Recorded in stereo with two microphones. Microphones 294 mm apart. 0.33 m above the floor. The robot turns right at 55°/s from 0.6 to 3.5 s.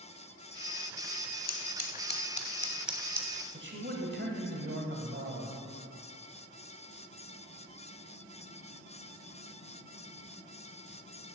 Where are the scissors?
60° left (ahead or behind), 0.8 m; by 3.3 s 20° right (ahead or behind), 0.8 m.